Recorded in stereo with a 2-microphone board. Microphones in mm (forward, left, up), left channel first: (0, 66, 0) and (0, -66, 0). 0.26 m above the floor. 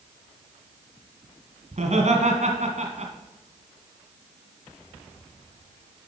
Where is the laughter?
60° right (ahead or behind), 2 m.